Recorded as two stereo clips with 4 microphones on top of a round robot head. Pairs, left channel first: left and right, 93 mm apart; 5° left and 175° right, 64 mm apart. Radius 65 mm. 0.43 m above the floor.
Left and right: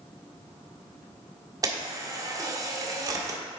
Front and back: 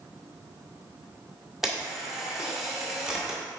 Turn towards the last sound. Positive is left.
turn(degrees=-95)